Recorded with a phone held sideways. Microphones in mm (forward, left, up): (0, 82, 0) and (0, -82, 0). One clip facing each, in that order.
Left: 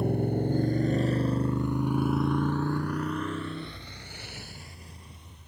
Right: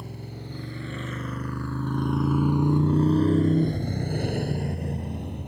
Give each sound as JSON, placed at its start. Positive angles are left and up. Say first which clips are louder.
{"t": 0.0, "sound": "a motorcycle", "louder": "left 13 dB", "side_deg": 55}